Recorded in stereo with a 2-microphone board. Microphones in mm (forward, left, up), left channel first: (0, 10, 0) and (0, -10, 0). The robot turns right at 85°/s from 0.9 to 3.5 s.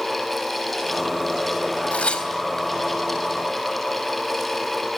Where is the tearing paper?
80° left, 3.5 m; by 2.7 s 15° left (ahead or behind), 3.5 m.